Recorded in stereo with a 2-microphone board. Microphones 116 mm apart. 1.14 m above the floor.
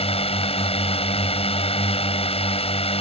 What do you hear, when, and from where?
0.0 s a drone: 60° left (ahead or behind)